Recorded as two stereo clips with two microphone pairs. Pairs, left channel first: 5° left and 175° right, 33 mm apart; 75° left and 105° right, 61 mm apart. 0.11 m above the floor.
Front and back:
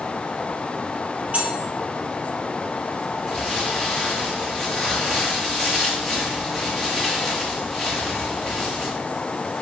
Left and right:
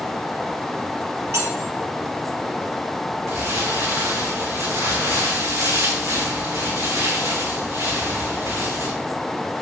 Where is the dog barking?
No dog barking in this recording.